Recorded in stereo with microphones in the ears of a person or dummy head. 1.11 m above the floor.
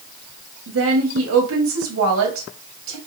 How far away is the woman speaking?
About 1.7 m.